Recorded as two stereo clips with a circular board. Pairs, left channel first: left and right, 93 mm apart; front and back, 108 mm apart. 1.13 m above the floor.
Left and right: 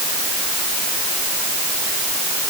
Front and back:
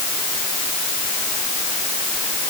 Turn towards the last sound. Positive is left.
No sound to turn to.